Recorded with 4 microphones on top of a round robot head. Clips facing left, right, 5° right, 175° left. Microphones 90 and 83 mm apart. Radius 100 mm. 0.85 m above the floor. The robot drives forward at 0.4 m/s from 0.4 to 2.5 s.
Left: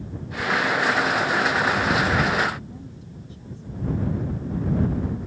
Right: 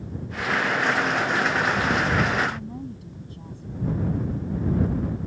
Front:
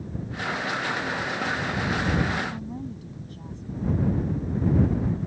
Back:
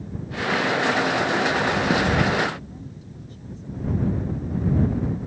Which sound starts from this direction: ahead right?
A woman speaking, at 2.5 s.